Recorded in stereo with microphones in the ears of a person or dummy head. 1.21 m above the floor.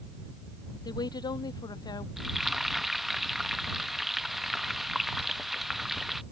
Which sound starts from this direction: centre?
Frying, at 2.2 s.